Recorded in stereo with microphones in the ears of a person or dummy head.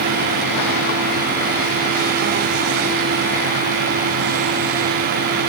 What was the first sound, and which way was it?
Only background noise.